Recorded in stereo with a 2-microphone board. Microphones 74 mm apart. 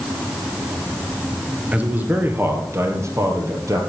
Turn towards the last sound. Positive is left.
turn(degrees=-45)  # may be behind; listen again after turning